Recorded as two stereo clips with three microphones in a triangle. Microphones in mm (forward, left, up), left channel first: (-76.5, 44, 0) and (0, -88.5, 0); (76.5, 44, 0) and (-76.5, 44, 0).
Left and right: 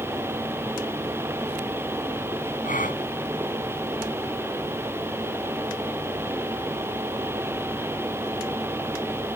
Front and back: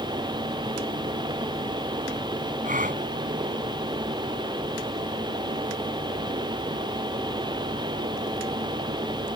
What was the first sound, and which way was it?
A gasp, 150° left.